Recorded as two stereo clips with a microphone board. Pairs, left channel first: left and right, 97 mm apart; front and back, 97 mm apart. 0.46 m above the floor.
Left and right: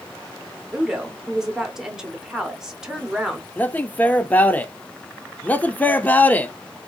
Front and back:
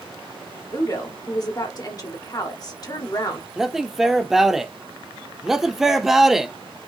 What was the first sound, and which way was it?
A woman speaking, 10° right.